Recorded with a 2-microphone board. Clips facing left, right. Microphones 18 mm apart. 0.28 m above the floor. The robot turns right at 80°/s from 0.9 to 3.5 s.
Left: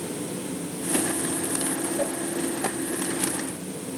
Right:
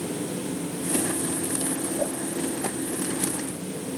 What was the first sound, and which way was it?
A whoosh, 55° left (ahead or behind).